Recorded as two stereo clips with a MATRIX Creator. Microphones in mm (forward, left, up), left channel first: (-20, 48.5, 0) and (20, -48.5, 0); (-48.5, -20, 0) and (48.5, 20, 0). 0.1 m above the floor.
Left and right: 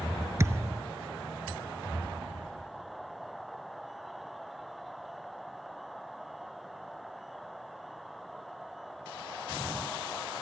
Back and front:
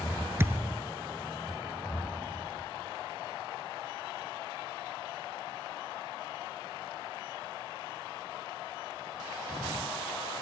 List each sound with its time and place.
0.4 s a thud: 25° right, 0.7 m